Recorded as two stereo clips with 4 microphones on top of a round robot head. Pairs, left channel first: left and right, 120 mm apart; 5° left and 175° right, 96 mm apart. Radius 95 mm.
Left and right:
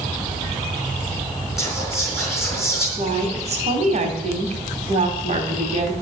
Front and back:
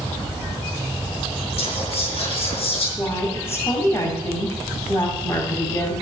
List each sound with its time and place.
1.6 s whispering: straight ahead, 5 m
3.0 s a woman speaking: 65° right, 3 m